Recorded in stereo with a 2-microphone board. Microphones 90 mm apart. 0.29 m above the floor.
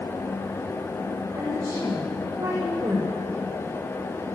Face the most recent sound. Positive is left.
turn(degrees=-30)  # may be behind; listen again after turning